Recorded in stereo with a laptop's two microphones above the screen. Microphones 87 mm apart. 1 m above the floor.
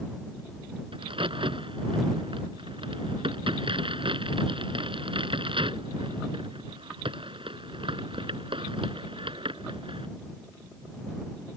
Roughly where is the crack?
Right.